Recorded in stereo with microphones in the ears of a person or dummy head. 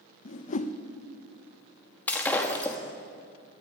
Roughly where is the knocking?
I don't hear knocking.